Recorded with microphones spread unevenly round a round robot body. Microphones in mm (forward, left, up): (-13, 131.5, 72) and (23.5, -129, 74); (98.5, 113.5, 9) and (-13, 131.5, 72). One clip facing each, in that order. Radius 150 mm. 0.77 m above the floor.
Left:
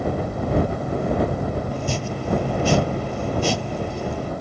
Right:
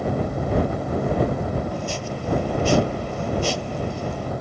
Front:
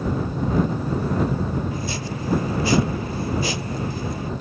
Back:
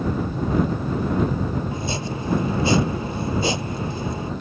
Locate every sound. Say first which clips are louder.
1.7 s chopping: left 2 dB, back 1 dB; 115° left